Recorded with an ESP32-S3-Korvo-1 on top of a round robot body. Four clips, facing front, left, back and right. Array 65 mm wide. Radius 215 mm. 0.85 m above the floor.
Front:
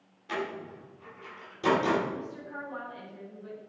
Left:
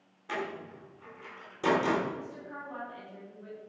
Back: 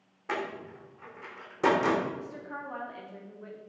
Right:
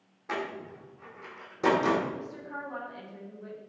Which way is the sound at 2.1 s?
165° right.